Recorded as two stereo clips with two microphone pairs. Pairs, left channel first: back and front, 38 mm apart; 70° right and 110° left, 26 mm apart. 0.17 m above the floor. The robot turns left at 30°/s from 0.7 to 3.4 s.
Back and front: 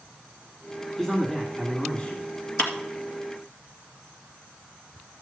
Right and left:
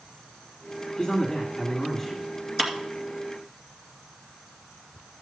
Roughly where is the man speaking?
Right.